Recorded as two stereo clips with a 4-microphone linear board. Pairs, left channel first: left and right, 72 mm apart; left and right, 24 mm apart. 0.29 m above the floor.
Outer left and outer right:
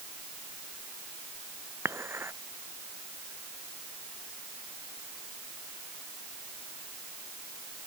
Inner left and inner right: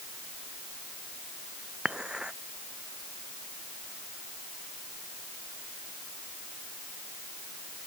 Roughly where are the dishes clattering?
Right.